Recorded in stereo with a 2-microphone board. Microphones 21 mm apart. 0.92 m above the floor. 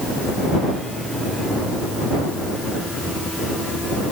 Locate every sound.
Only background noise.